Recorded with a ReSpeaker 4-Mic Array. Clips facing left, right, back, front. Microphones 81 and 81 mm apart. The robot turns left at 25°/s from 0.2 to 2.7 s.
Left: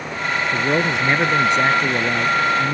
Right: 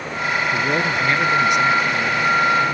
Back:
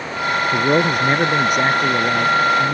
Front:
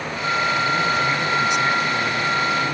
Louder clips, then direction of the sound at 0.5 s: Left 1 dB, back 4 dB; 170° left.